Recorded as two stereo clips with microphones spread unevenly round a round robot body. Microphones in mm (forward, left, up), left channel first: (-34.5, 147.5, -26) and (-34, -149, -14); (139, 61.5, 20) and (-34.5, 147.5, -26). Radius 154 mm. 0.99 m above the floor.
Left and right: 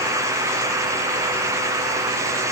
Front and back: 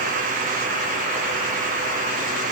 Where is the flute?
No flute in this recording.